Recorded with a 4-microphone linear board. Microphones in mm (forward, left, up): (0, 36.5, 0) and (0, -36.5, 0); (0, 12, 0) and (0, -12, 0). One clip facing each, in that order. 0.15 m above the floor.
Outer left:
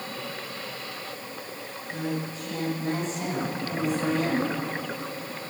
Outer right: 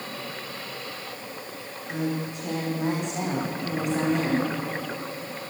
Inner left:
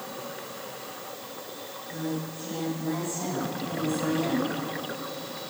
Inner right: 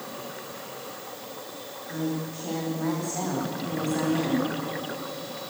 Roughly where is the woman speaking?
Right.